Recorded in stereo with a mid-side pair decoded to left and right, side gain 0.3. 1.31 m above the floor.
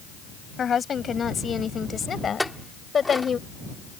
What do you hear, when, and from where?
0.6 s a woman speaking: 65° left; by 3.4 s 55° left
2.4 s a clink: 15° left